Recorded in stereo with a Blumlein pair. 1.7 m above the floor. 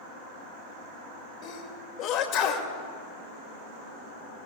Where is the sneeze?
35° left, 2.5 m.